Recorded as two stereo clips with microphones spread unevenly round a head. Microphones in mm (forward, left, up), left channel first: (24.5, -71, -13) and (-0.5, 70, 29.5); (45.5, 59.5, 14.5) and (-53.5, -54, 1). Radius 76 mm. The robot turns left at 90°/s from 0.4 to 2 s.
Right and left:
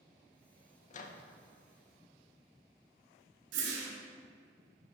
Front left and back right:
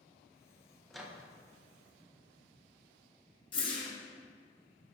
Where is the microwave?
35° right, 0.5 m; by 1.2 s 65° right, 0.5 m.